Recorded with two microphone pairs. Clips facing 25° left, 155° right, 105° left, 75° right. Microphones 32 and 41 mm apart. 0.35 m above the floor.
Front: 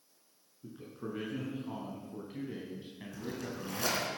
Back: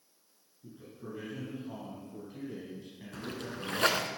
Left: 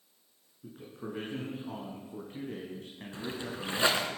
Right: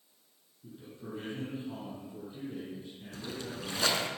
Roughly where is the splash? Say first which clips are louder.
Back 1 dB, left 2 dB; behind.